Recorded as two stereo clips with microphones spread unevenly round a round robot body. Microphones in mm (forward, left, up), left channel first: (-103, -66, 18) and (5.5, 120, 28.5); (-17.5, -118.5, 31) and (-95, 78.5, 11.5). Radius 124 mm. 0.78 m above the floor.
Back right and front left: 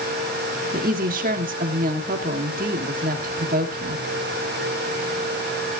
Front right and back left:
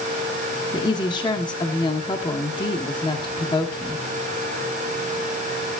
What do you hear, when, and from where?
0.7 s a woman speaking: 5° left, 1.8 m